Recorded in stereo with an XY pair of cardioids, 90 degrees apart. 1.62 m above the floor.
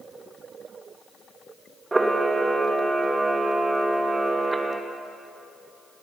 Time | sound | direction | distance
1.9 | a camera shutter | 25° right | 1.0 m